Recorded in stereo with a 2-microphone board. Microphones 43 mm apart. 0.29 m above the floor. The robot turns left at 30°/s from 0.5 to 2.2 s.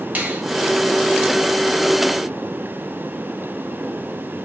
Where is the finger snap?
35° right (ahead or behind), 1.3 m.